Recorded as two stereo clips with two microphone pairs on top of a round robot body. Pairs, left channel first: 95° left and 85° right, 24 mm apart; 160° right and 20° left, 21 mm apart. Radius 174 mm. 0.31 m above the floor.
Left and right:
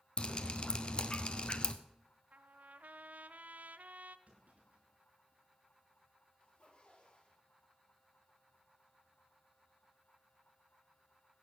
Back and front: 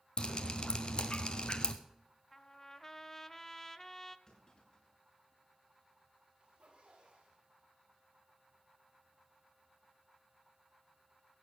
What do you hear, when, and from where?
0.2 s dripping: 150° left, 0.7 m
2.3 s a trumpet: 90° right, 0.8 m
4.3 s a clunk: 105° right, 7.5 m
6.4 s a zipper: 65° left, 6 m